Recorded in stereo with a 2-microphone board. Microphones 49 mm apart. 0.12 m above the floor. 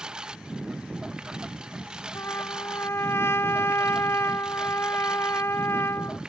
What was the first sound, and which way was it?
A lawn mower, 15° right (ahead or behind).